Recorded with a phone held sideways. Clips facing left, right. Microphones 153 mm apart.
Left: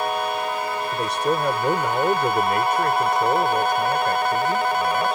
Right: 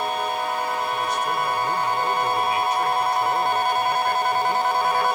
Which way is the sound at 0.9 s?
80° left.